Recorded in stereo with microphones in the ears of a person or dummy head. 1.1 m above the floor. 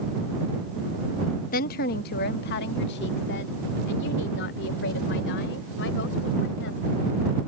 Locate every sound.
1.5 s a woman speaking: 40° left (ahead or behind); by 7.0 s 60° left (ahead or behind)